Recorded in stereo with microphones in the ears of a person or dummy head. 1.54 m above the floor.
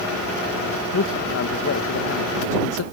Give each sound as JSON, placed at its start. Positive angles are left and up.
{"t": 0.9, "sound": "a man speaking", "side_deg": 60}